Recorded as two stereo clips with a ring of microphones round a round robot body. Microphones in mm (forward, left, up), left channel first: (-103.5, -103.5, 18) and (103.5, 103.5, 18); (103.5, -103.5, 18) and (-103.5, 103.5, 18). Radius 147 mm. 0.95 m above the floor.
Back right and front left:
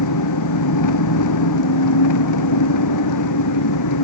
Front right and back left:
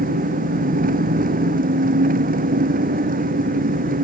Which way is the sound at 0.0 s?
165° right.